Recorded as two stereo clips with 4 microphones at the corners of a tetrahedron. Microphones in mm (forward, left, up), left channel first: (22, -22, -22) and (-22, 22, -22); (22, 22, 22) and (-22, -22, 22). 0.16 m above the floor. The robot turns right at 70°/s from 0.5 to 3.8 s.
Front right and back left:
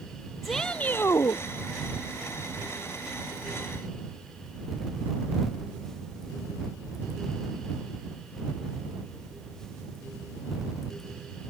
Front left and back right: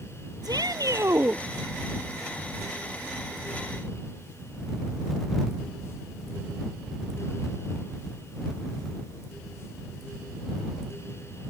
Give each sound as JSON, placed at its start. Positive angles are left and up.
{"t": 0.4, "sound": "a shout", "azimuth_deg": -135}